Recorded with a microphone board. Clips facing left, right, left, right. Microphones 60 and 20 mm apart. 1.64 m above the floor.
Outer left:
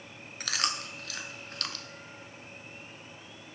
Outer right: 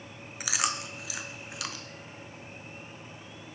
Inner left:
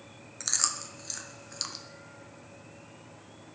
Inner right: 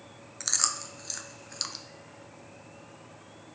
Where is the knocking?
I don't hear knocking.